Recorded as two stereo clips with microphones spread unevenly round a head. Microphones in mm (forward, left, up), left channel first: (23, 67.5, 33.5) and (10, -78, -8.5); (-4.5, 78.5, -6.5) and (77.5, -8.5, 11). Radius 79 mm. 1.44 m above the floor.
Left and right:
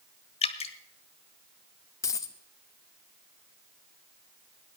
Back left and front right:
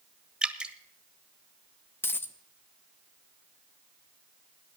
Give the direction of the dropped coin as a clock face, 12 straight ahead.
10 o'clock.